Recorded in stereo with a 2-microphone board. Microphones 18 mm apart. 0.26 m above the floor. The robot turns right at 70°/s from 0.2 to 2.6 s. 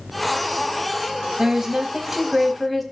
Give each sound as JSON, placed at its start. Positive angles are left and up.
{"t": 1.4, "sound": "a woman speaking", "azimuth_deg": -90, "distance_m": 1.3}